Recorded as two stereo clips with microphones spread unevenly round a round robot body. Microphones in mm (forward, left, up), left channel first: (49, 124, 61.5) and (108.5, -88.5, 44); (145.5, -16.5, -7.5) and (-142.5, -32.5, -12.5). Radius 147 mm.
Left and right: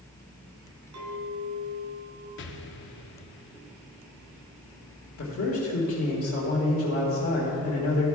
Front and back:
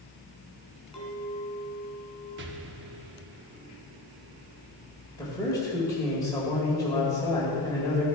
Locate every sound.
0.9 s a clink: 85° right, 3 m
2.4 s an explosion: 140° left, 0.6 m
5.2 s a man speaking: 80° left, 1.7 m